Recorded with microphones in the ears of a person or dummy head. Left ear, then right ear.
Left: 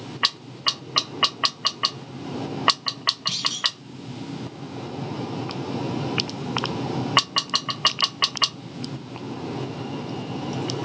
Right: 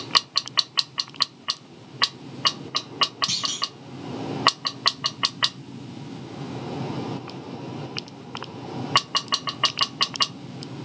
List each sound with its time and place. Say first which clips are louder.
3.3 s a clunk: left 2 dB; 45° right (ahead or behind), 3.5 m